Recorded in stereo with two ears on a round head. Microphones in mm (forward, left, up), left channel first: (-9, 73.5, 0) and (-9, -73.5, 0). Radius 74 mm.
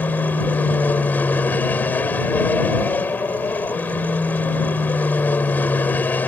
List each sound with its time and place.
0.0 s an aircraft: 10° left (ahead or behind)